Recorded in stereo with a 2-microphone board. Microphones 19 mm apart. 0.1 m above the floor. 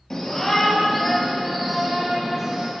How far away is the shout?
About 2.5 m.